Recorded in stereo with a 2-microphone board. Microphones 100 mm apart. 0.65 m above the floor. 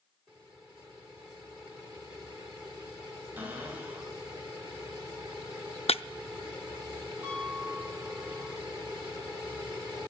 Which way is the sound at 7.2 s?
20° right (ahead or behind).